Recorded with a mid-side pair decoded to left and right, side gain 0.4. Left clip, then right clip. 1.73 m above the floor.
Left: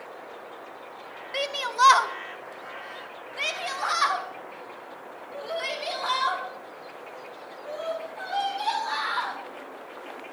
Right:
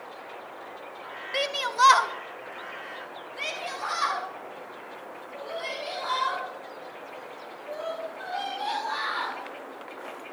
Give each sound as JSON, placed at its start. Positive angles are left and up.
{"t": 1.3, "sound": "a shout", "azimuth_deg": -15, "distance_m": 0.8}